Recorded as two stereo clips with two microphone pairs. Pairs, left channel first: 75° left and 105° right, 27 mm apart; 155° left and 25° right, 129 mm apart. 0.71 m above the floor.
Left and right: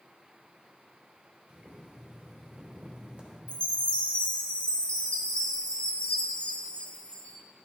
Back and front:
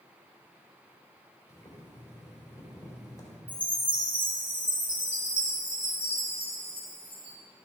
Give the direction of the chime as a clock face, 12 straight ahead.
11 o'clock.